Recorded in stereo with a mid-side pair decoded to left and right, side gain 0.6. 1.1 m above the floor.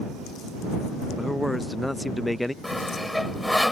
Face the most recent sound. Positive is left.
turn(degrees=5)